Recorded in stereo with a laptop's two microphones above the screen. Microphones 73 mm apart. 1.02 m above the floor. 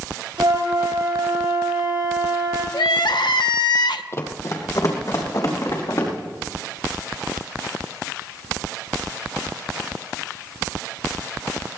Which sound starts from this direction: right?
A flute, at 0.4 s.